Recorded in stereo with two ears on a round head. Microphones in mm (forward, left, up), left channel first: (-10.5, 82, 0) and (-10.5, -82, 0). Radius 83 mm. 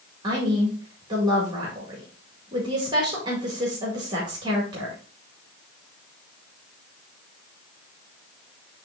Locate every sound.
0.2 s a woman speaking: 25° right (ahead or behind), 2 m